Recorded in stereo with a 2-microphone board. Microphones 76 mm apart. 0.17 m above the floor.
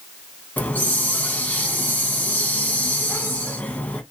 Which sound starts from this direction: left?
A hiss, at 0.6 s.